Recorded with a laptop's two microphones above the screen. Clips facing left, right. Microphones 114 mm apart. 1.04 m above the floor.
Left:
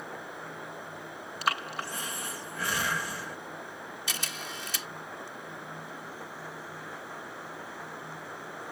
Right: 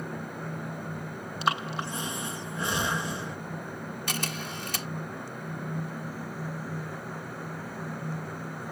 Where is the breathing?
25° right (ahead or behind).